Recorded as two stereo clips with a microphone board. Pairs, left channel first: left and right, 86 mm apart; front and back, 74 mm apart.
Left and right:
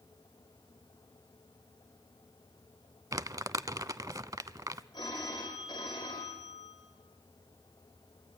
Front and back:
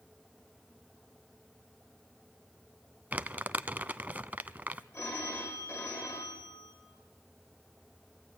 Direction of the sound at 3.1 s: 115° right.